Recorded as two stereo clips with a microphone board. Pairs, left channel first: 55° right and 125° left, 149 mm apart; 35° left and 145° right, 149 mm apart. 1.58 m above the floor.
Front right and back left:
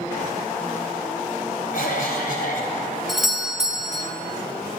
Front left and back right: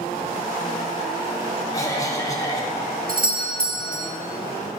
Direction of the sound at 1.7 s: 35° right.